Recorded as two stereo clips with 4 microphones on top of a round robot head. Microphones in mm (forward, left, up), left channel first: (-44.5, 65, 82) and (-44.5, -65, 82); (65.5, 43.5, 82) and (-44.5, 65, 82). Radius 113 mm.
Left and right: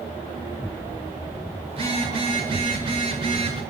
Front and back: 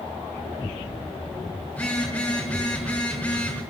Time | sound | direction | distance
1.7 | a phone buzzing | 85° right | 1.2 m